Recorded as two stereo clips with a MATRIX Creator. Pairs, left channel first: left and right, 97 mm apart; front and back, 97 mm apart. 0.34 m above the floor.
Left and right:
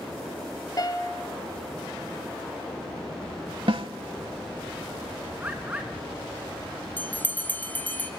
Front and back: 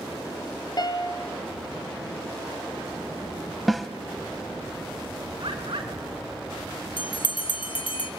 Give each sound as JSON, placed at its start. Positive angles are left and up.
{"t": 0.8, "sound": "a piano", "azimuth_deg": 40, "distance_m": 1.5}
{"t": 3.7, "sound": "a snare drum", "azimuth_deg": -90, "distance_m": 0.8}
{"t": 5.4, "sound": "a bird", "azimuth_deg": -160, "distance_m": 3.0}
{"t": 7.0, "sound": "a bell", "azimuth_deg": 20, "distance_m": 1.7}